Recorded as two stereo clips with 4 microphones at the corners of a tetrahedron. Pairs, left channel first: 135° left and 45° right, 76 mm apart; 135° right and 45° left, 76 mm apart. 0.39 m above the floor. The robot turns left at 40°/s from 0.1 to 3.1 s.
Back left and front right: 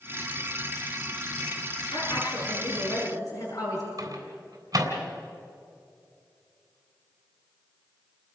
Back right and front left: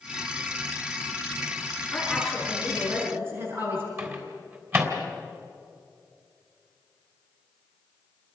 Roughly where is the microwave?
Ahead.